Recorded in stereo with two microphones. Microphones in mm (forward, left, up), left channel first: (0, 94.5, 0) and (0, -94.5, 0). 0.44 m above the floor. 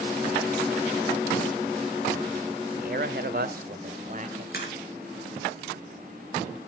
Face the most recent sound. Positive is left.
turn(degrees=55)  # may be behind; listen again after turning